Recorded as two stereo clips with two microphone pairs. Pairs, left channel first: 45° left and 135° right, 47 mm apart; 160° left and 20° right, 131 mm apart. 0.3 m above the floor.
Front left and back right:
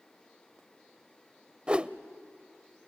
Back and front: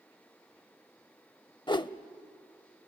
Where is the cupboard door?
No cupboard door in this recording.